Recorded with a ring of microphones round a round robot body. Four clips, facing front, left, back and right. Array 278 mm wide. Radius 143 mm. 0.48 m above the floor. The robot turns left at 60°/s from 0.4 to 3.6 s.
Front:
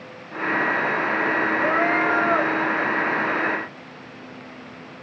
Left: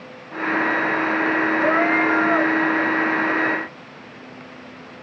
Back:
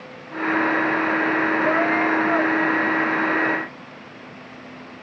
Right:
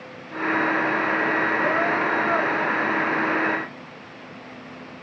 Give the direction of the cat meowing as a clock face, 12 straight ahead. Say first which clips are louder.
Left 4 dB, front 1 dB; 9 o'clock.